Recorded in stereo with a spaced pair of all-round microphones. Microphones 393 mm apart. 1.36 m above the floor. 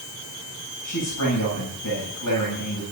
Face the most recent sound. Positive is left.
turn(degrees=55)  # may be behind; listen again after turning